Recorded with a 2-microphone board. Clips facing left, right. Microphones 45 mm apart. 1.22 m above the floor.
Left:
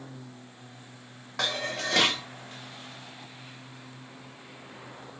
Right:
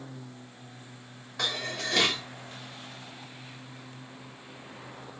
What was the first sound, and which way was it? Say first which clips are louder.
Dishes clattering: left 2 dB; 70° left (ahead or behind).